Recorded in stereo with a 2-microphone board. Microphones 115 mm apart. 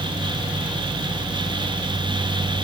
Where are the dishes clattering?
No dishes clattering in this recording.